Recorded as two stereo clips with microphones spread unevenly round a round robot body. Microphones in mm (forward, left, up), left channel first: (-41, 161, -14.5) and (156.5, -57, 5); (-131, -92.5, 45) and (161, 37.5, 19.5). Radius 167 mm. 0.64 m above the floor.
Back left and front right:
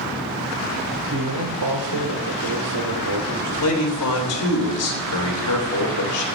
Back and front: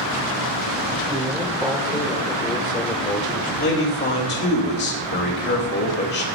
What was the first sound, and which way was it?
A man speaking, 50° right.